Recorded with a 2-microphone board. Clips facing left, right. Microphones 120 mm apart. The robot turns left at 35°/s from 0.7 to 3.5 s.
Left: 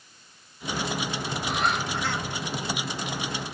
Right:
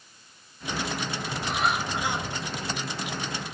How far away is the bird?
About 2 m.